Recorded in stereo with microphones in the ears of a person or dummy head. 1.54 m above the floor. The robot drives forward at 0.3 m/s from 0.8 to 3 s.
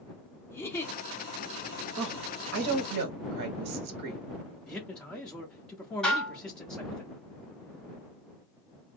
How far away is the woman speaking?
About 0.7 m.